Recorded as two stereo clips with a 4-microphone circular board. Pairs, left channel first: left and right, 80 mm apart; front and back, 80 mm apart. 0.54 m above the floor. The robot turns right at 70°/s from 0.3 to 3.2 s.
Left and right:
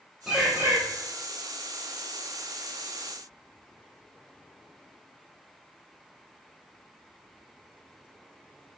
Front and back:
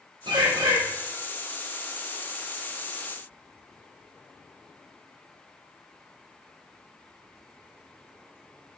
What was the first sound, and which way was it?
A bird, 175° right.